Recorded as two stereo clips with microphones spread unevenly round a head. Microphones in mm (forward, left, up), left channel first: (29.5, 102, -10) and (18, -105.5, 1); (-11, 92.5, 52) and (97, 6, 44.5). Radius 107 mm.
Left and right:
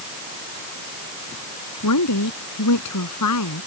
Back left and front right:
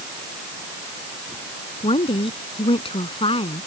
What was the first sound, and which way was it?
A woman speaking, 90° left.